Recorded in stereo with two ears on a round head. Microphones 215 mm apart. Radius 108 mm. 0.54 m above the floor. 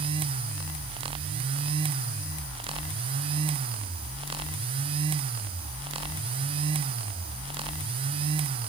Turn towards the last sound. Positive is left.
No sound to turn to.